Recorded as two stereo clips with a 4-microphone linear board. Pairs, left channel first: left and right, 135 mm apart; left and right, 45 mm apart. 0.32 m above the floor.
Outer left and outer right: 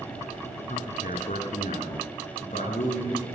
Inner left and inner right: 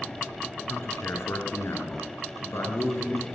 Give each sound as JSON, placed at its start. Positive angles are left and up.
{"t": 0.7, "sound": "a man speaking", "side_deg": 65, "distance_m": 4.5}